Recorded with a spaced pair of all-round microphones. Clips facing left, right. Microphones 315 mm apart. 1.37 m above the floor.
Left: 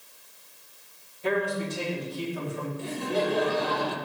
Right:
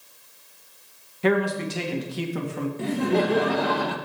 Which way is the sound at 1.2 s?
80° right.